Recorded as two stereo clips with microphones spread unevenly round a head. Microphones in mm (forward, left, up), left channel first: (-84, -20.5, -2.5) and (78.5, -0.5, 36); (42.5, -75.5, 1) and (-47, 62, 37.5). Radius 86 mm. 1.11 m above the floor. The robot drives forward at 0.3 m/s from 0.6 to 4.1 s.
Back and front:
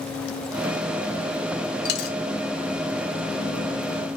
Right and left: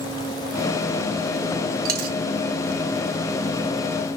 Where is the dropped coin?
145° left, 1.2 m; by 2.2 s 150° left, 1.3 m.